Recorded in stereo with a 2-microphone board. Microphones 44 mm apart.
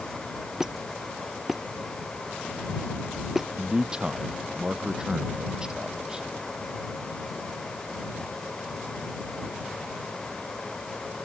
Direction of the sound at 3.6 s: 15° right (ahead or behind).